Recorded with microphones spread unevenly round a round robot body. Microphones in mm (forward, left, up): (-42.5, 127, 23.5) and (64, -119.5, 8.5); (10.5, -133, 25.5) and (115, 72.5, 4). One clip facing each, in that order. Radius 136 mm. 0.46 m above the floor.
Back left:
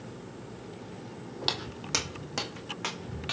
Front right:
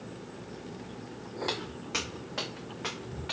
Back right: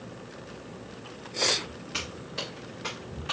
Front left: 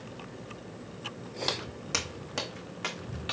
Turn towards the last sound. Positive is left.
turn(degrees=80)